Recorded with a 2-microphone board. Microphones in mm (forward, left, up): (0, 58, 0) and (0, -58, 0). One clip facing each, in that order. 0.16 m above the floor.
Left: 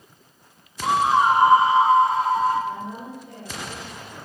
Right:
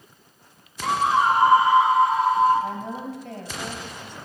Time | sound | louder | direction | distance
0.8 | a scream | left 2 dB | 15° left (ahead or behind) | 1.2 m
2.6 | a woman speaking | right 1 dB | 70° right (ahead or behind) | 4 m